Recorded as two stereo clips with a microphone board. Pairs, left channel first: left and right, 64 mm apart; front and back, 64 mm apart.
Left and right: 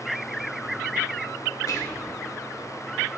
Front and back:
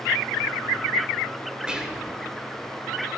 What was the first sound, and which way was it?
Whispering, 105° left.